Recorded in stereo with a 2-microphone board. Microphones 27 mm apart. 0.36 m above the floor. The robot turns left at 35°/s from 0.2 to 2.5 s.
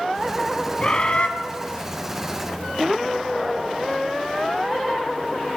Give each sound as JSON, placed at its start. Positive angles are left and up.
{"t": 0.8, "sound": "a bird", "side_deg": 35, "distance_m": 1.0}